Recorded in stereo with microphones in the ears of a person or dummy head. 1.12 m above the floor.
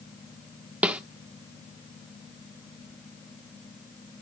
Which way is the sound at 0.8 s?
10° right (ahead or behind).